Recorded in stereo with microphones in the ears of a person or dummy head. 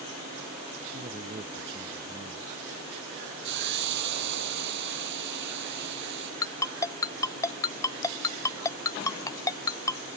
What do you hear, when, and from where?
0.9 s a man speaking: 25° right (ahead or behind)
3.4 s a hiss: 60° right (ahead or behind)
6.4 s a ringtone: 20° left (ahead or behind)